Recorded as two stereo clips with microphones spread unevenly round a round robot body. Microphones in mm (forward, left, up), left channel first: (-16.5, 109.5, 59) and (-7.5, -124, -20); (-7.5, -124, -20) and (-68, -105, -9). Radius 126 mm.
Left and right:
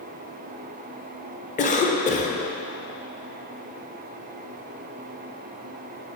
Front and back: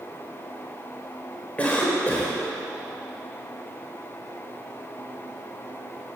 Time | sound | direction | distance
1.6 | a cough | 25° left | 0.9 m